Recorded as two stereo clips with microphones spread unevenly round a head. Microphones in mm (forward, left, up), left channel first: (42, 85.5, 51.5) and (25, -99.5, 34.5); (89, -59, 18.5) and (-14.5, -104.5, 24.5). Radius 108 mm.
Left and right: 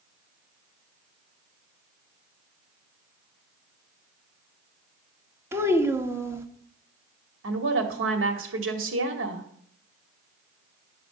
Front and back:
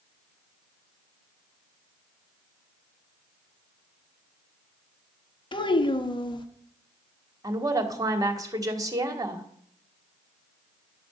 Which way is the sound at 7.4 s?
95° right.